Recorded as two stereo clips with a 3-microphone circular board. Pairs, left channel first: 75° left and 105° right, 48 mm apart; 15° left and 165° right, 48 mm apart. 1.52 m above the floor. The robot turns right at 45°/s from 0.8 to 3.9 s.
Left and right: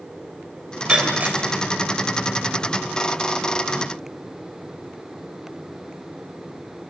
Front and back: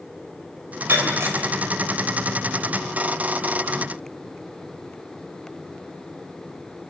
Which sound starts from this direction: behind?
Breaking glass, at 0.9 s.